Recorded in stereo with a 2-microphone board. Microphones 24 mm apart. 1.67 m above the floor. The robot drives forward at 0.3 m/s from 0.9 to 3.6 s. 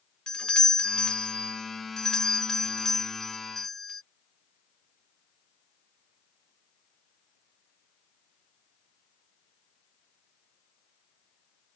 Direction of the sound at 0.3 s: 35° left (ahead or behind).